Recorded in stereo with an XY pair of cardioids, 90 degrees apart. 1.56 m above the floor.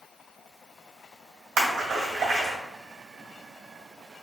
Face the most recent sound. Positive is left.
turn(degrees=-65)